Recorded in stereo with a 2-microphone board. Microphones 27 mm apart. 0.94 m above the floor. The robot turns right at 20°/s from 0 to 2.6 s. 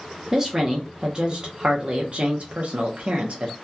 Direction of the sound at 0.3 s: 160° right.